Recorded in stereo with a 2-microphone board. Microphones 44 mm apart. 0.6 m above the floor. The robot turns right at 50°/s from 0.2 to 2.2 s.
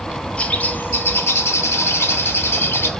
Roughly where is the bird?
Ahead left.